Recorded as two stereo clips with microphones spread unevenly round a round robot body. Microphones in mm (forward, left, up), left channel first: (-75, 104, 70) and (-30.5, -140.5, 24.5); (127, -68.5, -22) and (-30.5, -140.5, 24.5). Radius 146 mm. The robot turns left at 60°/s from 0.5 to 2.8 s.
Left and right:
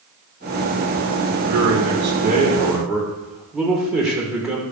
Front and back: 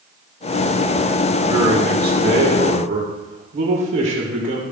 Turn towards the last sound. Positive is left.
turn(degrees=-165)